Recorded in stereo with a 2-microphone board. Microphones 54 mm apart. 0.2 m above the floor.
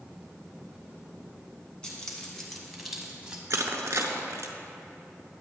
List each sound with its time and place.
1.8 s keys jangling: 15° left (ahead or behind), 1.5 m; by 3.4 s 20° right (ahead or behind), 1.0 m
3.5 s crushing: 65° right (ahead or behind), 0.7 m